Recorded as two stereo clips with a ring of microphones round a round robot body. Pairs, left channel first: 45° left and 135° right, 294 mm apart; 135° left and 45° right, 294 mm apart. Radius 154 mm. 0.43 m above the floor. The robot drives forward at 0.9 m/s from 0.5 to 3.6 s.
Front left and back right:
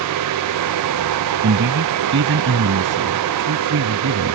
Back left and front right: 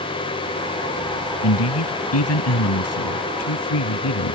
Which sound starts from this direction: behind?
A man speaking, at 1.4 s.